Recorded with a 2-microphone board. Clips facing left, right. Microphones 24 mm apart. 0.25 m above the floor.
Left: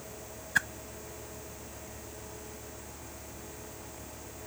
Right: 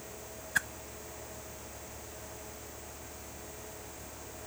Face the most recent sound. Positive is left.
turn(degrees=15)  # may be behind; listen again after turning